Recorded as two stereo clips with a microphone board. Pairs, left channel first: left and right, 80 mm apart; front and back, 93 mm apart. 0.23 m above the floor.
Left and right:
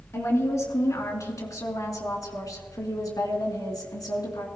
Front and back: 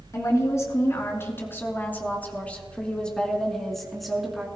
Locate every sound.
0.1 s a woman speaking: 45° left, 3.5 m; by 4.5 s 95° left, 3 m